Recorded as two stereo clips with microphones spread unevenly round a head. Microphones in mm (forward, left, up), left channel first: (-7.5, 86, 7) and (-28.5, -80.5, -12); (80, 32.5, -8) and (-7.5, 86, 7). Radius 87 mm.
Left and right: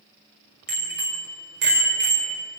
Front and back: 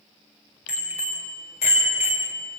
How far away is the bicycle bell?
About 5.5 m.